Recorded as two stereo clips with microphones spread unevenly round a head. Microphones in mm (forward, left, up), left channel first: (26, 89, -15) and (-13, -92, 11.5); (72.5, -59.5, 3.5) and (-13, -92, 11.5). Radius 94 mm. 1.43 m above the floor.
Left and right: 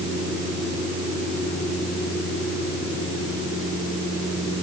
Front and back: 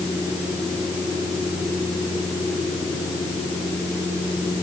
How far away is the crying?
No crying in this recording.